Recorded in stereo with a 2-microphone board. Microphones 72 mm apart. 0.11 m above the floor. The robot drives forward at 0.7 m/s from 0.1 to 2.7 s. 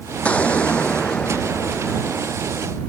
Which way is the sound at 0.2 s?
20° left (ahead or behind).